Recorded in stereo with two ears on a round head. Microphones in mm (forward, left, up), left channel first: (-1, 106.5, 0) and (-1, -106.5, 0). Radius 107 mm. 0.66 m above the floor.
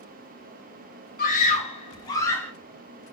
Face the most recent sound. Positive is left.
turn(degrees=5)  # may be behind; listen again after turning